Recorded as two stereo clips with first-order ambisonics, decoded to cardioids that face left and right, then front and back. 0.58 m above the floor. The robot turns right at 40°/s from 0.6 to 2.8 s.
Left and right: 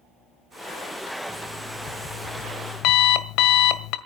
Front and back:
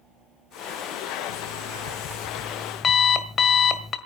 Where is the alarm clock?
5° left, 1.7 m; by 4.0 s 65° left, 1.7 m.